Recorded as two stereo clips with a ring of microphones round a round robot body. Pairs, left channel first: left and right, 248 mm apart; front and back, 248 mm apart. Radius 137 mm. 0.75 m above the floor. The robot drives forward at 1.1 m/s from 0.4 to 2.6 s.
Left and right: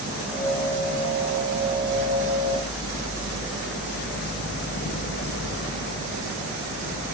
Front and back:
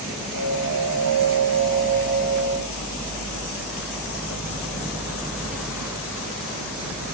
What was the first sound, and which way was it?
Only background noise.